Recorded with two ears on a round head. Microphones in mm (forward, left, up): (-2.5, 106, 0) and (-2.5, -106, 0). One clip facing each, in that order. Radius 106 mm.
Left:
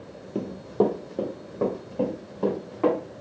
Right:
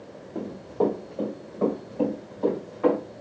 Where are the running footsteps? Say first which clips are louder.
Left 2 dB; 45° left (ahead or behind), 1.0 m; by 3.0 s 70° left (ahead or behind), 3.5 m.